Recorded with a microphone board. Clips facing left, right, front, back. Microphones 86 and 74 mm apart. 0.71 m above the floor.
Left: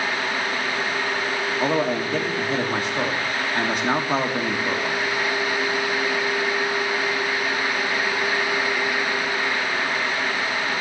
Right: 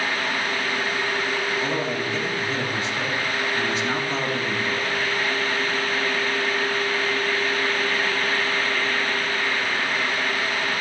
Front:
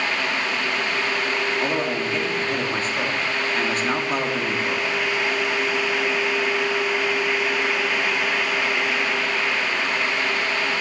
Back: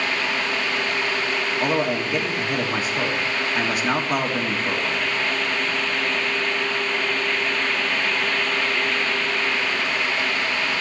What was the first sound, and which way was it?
A man speaking, 100° left.